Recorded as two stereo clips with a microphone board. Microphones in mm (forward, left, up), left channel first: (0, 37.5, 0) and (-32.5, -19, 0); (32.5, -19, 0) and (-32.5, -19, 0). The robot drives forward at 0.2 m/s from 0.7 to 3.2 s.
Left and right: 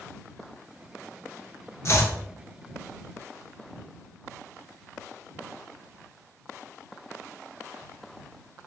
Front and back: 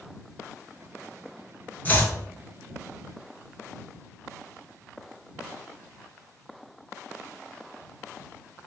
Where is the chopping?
50° left, 0.6 m; by 2.1 s 55° left, 0.6 m.